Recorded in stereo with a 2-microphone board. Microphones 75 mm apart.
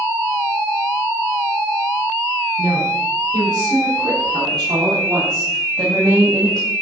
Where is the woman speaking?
80° right, 5 m; by 6.7 s 55° right (ahead or behind), 2.5 m.